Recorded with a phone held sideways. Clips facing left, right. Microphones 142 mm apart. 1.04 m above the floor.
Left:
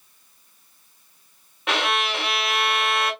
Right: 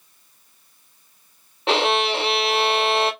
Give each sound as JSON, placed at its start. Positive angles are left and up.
{"t": 1.7, "sound": "a violin", "side_deg": -30, "distance_m": 0.6}